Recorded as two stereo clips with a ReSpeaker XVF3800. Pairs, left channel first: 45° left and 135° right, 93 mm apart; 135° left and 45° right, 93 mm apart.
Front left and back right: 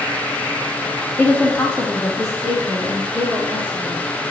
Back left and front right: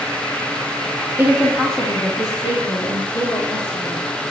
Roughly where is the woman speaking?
Ahead.